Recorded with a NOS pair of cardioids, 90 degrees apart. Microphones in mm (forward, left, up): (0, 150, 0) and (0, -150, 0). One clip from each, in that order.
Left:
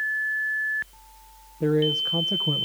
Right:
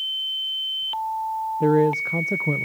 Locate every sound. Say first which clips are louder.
1.6 s a man speaking: right 2 dB; 20° right, 0.8 m